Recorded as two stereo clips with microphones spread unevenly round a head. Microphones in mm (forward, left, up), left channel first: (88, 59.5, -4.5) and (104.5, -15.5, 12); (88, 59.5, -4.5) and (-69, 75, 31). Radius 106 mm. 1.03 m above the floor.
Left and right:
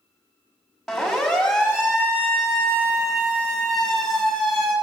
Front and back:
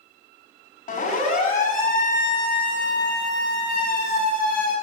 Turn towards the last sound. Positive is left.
turn(degrees=10)